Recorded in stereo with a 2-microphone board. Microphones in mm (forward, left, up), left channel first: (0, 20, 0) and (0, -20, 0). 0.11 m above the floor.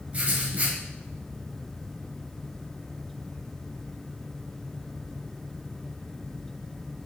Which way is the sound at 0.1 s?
30° right (ahead or behind).